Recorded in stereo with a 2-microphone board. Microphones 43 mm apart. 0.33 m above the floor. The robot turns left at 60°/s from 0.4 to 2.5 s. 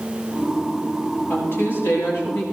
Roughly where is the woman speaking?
Behind left.